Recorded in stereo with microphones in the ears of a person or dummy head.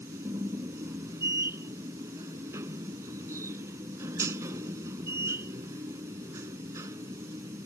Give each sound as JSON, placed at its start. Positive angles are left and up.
{"t": 0.0, "sound": "a machine running", "side_deg": -15}